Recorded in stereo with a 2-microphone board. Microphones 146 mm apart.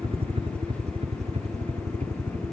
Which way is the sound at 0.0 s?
40° right (ahead or behind).